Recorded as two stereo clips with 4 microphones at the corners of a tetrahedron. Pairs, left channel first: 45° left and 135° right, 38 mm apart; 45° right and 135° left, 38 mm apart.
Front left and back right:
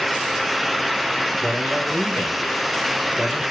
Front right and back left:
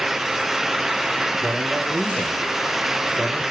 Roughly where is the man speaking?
Behind right.